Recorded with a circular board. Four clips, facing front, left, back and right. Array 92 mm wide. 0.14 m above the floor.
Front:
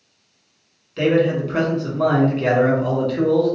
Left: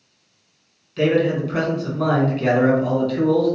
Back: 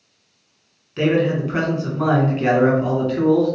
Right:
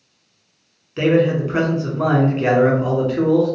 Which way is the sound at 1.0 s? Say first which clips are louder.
Right 2 dB, front 1 dB; 120° right.